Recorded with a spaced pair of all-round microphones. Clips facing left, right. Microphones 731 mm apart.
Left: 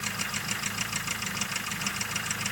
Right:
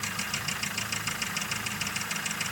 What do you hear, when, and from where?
Only background noise.